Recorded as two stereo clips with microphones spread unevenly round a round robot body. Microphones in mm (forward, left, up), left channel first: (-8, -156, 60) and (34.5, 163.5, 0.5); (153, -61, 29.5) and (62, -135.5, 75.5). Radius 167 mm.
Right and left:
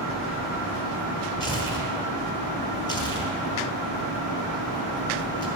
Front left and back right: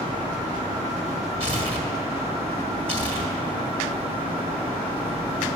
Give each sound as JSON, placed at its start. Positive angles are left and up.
{"t": 1.4, "sound": "tearing paper", "azimuth_deg": -15, "distance_m": 2.0}